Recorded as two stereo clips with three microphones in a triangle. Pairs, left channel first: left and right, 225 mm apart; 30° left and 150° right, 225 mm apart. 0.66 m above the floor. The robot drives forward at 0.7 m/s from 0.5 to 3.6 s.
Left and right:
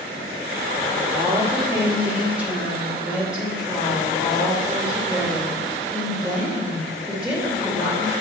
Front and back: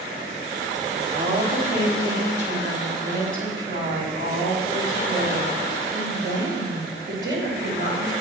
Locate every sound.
1.1 s a woman speaking: 165° right, 1.1 m; by 8.1 s 175° right, 2.5 m